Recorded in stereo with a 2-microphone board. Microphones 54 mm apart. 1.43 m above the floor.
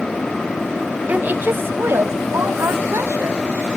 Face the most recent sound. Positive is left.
turn(degrees=-55)  # may be behind; listen again after turning